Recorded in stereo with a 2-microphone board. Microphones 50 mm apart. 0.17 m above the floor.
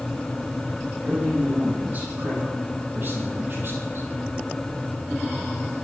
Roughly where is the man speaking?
Right.